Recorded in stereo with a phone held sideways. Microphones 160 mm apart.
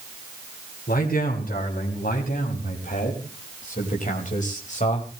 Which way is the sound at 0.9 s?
65° left (ahead or behind).